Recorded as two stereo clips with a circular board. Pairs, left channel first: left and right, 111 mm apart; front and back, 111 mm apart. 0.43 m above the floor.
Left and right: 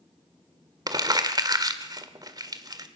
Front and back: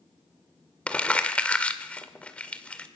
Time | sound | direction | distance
0.9 | crumpling | 75° right | 1.7 m